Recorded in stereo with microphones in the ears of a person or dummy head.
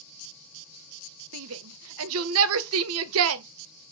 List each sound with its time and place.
1.3 s a shout: 75° right (ahead or behind), 0.5 m